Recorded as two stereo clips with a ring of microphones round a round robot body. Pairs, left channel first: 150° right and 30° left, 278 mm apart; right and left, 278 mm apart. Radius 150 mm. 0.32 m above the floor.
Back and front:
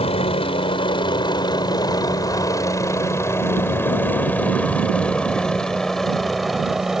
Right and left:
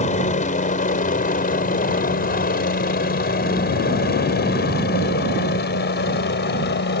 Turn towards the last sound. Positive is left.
turn(degrees=-60)